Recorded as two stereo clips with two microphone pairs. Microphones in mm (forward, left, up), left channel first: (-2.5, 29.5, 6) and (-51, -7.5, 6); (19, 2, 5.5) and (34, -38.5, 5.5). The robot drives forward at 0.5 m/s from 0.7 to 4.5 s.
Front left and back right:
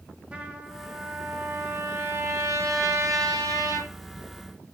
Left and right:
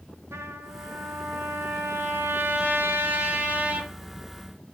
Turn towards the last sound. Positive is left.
turn(degrees=-130)